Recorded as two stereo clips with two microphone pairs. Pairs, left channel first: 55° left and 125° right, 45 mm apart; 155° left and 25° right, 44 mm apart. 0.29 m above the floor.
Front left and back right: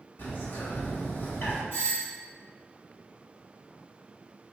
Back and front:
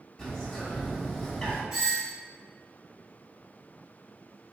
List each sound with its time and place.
0.2 s a bird: 80° left, 1.8 m
1.7 s a doorbell: 45° left, 1.9 m